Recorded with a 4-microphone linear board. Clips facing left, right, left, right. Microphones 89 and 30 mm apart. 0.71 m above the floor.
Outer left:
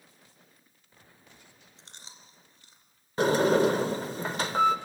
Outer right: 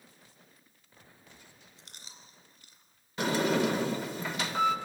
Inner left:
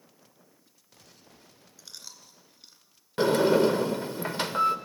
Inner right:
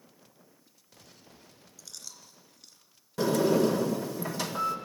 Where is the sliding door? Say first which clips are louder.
Outer left 5 dB, inner left 3 dB; 40° left (ahead or behind), 1.3 m.